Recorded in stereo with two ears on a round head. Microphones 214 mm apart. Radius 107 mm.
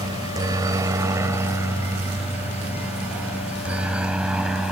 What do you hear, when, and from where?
0.0 s a helicopter: 15° right (ahead or behind); by 4.7 s centre (ahead or behind)